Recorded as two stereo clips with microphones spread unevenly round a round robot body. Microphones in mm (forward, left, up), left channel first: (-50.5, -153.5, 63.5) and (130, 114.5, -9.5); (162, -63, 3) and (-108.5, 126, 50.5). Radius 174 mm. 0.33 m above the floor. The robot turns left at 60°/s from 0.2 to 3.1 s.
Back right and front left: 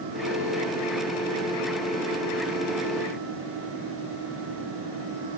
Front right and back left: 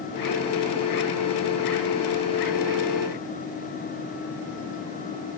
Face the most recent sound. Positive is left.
No sound to turn to.